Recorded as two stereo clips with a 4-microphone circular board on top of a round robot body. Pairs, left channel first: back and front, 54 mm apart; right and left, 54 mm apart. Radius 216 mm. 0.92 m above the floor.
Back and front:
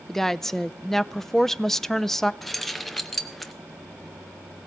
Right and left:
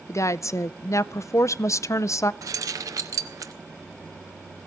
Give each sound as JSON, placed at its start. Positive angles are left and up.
{"t": 0.1, "sound": "a woman speaking", "azimuth_deg": -100, "distance_m": 0.6}
{"t": 2.4, "sound": "keys jangling", "azimuth_deg": 90, "distance_m": 0.6}